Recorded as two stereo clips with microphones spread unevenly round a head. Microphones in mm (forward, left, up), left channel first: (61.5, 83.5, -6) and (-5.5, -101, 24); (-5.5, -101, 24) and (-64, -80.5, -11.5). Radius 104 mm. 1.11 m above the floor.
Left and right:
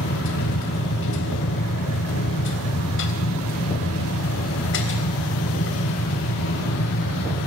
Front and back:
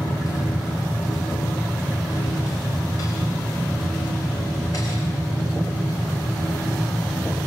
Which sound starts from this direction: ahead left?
A machine running, at 0.0 s.